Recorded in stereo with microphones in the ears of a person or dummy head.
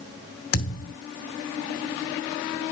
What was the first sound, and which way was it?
A thud, 50° left (ahead or behind).